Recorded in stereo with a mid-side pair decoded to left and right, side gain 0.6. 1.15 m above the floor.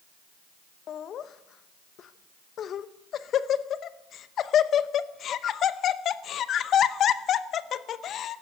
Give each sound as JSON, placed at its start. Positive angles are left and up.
{"t": 0.9, "sound": "laughter", "azimuth_deg": 50, "distance_m": 0.8}